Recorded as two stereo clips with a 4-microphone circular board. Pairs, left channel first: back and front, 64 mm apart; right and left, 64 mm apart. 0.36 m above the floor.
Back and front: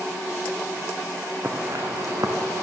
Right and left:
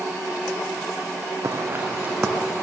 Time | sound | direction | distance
1.4 | footsteps | 55° left | 1.4 m